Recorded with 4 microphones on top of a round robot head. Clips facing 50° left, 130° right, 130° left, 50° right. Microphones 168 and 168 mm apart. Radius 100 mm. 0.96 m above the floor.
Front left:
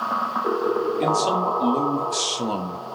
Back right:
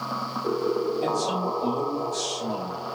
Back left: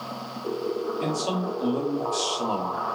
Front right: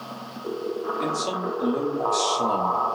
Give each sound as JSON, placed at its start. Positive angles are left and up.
{"t": 1.0, "sound": "a man speaking", "azimuth_deg": 30, "distance_m": 1.9}